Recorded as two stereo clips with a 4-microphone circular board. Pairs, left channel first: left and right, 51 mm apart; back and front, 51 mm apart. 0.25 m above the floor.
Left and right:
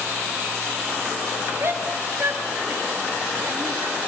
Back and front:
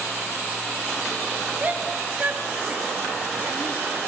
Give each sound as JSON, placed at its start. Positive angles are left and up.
{"t": 1.6, "sound": "a shout", "azimuth_deg": -55, "distance_m": 4.0}